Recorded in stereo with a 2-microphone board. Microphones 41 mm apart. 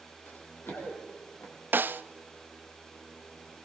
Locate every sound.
0.3 s running footsteps: 60° left (ahead or behind), 8 m; by 1.5 s 70° left (ahead or behind), 7 m
1.7 s a snare drum: 55° right (ahead or behind), 0.7 m